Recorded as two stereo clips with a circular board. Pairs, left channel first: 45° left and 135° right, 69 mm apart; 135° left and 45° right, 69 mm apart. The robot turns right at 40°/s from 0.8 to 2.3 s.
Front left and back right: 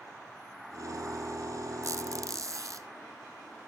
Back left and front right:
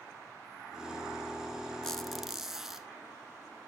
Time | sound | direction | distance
1.8 | a squeak | 145° right | 0.8 m